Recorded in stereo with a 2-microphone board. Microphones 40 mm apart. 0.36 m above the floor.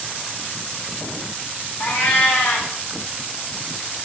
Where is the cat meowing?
80° left, 1.5 m.